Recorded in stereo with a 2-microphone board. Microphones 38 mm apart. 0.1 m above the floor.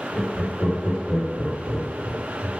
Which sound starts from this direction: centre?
Laughter, at 0.1 s.